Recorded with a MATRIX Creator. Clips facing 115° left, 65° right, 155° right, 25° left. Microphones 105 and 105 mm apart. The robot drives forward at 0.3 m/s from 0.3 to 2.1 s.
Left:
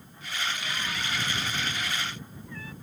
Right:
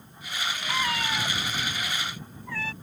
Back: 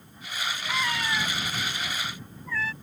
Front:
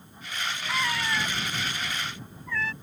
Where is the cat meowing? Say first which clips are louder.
Right 5 dB, even; 65° right; by 2.7 s 70° right.